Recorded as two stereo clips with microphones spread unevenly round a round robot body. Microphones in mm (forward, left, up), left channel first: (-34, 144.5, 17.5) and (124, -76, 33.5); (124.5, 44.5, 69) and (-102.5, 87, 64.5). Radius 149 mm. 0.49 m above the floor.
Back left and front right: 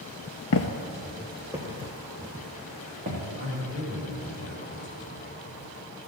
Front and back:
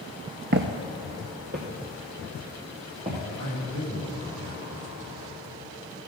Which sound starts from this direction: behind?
A man speaking, at 3.4 s.